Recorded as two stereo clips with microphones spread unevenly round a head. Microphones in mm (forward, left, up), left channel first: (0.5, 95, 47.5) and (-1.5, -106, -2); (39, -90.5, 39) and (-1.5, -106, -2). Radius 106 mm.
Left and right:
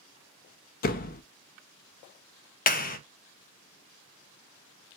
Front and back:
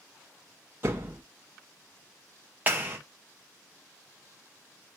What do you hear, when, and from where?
0.8 s a door slam: 135° left, 0.6 m
2.7 s a clap: 140° left, 0.5 m